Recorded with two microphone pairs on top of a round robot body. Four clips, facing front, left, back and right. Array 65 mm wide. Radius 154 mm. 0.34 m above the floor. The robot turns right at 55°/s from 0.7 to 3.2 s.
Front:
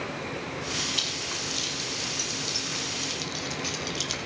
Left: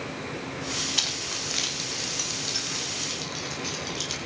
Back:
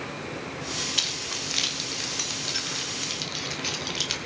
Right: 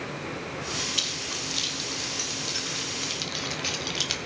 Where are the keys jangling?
100° left, 1.8 m; by 4.2 s 135° right, 1.8 m.